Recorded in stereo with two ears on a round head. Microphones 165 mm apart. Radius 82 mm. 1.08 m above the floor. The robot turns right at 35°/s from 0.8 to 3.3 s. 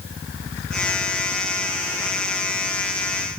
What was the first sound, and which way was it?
Only background noise.